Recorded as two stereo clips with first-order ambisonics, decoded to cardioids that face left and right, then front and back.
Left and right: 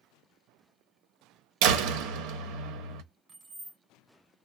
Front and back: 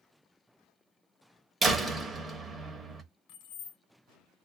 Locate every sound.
1.6 s a door slam: 105° right, 0.8 m
3.3 s keys jangling: 15° right, 1.1 m